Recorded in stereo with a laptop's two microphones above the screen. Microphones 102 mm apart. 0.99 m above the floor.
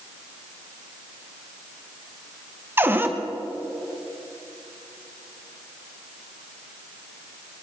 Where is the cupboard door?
20° right (ahead or behind), 0.7 m.